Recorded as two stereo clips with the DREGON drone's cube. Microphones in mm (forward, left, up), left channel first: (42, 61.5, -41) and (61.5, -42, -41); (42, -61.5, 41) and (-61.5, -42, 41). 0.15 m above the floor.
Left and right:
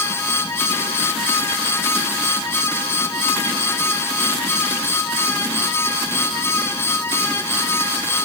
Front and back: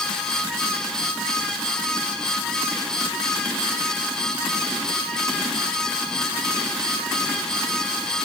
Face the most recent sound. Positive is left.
No sound to turn to.